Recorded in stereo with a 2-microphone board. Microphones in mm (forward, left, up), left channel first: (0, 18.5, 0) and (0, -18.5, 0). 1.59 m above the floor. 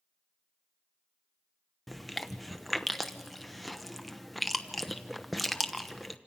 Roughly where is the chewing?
Centre.